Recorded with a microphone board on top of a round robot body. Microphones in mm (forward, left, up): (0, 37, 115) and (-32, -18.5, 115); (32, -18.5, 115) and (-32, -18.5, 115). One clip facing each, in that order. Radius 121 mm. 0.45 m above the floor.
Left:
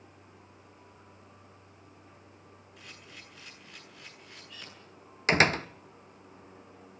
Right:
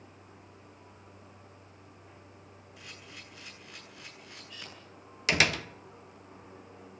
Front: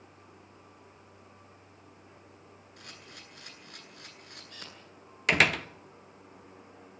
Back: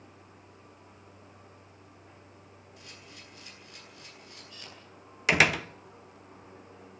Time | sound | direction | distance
2.8 | a camera shutter | 35° right | 9.5 m
5.3 | a door slam | 95° left | 1.0 m